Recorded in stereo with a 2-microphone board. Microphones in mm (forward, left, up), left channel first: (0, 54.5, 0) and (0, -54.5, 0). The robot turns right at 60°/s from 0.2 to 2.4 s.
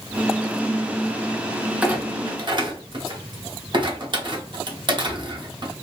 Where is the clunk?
10° right (ahead or behind), 0.7 m; by 5.7 s 45° right (ahead or behind), 0.7 m.